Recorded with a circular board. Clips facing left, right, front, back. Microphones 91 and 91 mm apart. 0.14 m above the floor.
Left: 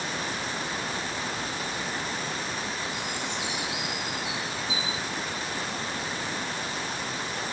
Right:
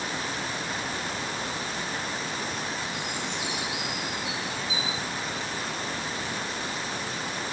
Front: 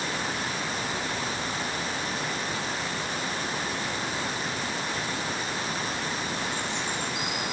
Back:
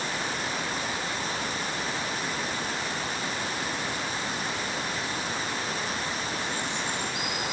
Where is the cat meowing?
I don't hear a cat meowing.